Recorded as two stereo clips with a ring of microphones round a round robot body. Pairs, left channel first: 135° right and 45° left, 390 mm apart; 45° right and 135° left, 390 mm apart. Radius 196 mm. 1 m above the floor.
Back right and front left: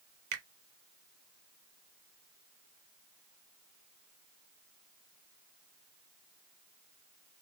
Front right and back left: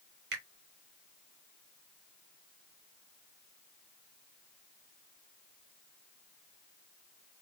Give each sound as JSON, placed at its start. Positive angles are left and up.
{"t": 0.3, "sound": "a finger snap", "azimuth_deg": 70, "distance_m": 1.0}